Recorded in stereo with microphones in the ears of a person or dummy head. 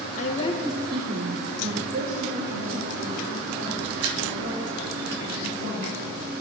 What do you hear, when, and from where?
0.2 s a woman speaking: 40° left (ahead or behind), 0.7 m; by 5.9 s 60° right (ahead or behind), 6 m